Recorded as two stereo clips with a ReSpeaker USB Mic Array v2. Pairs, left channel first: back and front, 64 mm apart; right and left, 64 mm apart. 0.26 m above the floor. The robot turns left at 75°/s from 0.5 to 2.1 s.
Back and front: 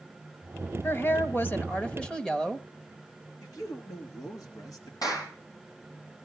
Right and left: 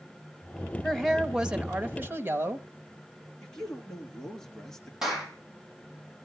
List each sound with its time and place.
0.8 s a woman speaking: 155° right, 1.4 m; by 2.7 s 110° left, 1.4 m
3.4 s a man speaking: 170° right, 3.5 m
5.0 s a clap: 175° left, 6.5 m